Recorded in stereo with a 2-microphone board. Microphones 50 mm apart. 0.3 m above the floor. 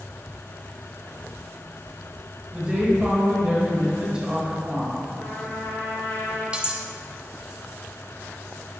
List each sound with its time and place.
2.5 s a woman speaking: 20° right (ahead or behind), 1.5 m
5.1 s a trumpet: 70° left (ahead or behind), 1.9 m
6.5 s cutlery clinking: 20° right (ahead or behind), 0.6 m